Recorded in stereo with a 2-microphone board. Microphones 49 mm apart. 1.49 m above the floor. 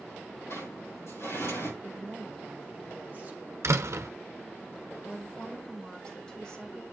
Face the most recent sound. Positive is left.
turn(degrees=20)  # may be behind; listen again after turning